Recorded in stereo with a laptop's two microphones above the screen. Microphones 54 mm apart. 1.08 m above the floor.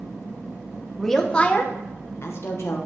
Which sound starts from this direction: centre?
A woman speaking, at 1.0 s.